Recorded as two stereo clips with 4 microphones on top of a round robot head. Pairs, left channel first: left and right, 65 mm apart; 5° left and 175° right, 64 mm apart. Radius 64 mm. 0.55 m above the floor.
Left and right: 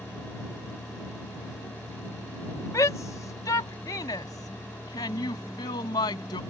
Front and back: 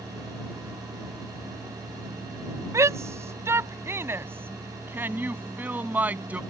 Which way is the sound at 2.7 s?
140° left.